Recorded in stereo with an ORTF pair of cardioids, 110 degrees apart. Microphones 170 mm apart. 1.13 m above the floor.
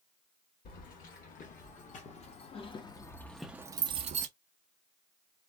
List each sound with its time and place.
0.7 s keys jangling: 55° left, 1.7 m; by 4.3 s 60° right, 0.6 m